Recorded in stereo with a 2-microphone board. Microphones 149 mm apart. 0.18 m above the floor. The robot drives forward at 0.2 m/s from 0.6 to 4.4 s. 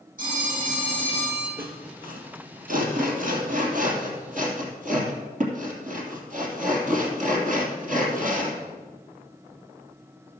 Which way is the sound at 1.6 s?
65° right (ahead or behind).